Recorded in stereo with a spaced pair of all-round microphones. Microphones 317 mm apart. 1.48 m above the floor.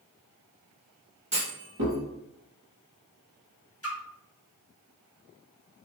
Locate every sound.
1.3 s a clunk: 70° right (ahead or behind), 3 m
3.8 s a splash: 45° left (ahead or behind), 1.6 m